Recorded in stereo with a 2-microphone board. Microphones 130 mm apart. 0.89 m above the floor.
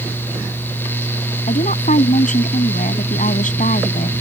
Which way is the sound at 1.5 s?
80° left.